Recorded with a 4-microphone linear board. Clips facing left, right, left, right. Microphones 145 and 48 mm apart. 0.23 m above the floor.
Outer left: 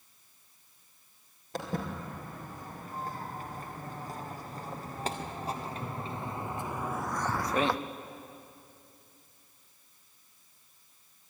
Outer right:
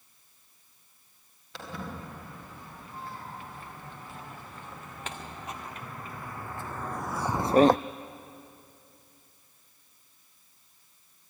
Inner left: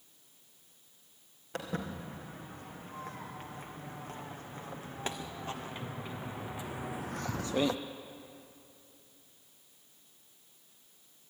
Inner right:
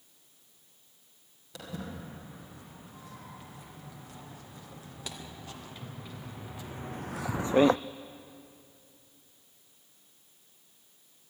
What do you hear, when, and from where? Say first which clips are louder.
1.5 s footsteps: outer left 4 dB, inner left 3 dB; 45° left (ahead or behind), 4.5 m; by 7.8 s 50° right (ahead or behind), 0.5 m